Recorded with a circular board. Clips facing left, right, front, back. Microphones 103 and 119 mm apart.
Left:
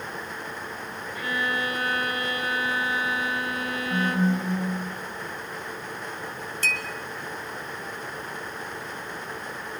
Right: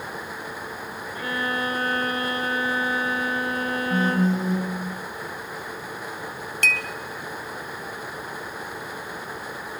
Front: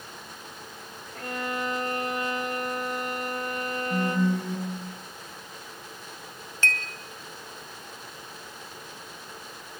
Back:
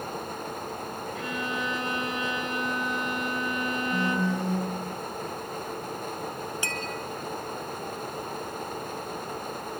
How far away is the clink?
About 1.7 m.